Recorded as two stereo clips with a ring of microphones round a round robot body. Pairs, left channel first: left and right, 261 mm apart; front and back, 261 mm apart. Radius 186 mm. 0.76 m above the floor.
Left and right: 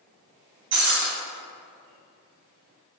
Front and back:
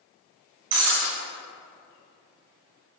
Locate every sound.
0.7 s breaking glass: 160° right, 3 m